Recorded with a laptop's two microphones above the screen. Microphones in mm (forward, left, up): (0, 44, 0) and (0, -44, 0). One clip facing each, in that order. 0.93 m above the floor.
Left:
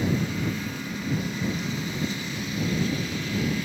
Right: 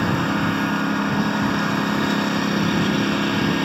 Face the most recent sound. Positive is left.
turn(degrees=-75)  # may be behind; listen again after turning